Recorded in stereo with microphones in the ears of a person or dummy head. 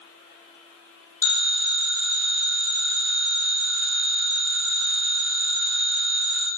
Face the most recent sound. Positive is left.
turn(degrees=10)  # may be behind; listen again after turning